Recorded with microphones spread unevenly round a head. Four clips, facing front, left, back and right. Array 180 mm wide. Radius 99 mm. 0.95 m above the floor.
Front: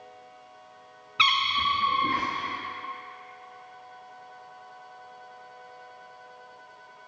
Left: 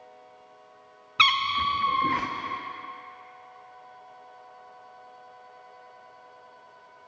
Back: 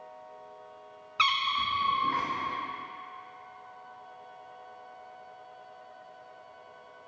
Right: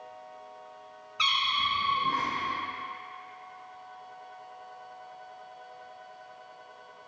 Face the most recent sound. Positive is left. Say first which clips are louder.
# left 6 dB, front 3 dB
turn(degrees=70)